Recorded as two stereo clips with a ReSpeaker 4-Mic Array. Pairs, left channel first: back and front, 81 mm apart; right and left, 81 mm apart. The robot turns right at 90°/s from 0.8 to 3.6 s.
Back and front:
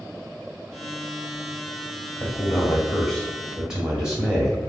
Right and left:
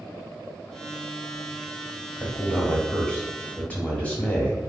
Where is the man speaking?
165° left, 1.0 m; by 4.6 s 70° right, 1.0 m.